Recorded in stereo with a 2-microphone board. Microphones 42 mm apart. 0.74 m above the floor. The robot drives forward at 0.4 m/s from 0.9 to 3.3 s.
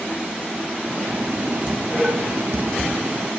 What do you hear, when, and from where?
1.7 s dishes clattering: 45° right (ahead or behind), 0.8 m; by 2.9 s 70° right (ahead or behind), 0.6 m